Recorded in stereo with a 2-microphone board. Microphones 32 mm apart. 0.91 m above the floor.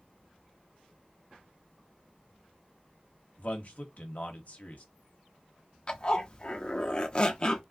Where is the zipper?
25° left (ahead or behind), 0.6 m.